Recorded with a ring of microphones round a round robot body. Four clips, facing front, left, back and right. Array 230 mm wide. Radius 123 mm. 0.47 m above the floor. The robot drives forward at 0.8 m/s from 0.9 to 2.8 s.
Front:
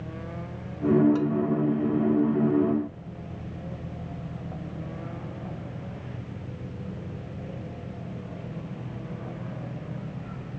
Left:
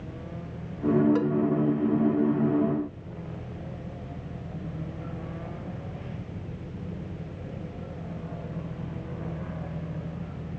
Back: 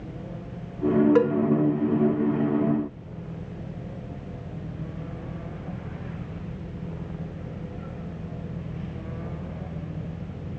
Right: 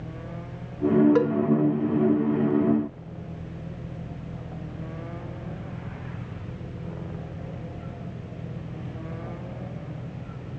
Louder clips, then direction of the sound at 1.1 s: Right 3 dB, back 6 dB; 155° right.